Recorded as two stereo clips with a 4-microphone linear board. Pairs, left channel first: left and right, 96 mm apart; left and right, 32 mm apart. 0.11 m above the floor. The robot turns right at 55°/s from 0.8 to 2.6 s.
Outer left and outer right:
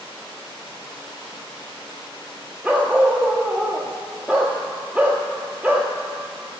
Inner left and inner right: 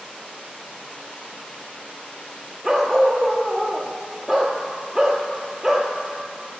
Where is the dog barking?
15° right (ahead or behind), 1.0 m.